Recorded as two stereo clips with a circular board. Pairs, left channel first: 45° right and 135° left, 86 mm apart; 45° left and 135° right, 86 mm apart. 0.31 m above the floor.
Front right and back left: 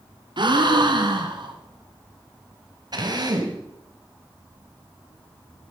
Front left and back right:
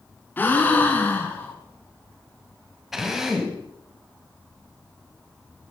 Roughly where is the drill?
Behind left.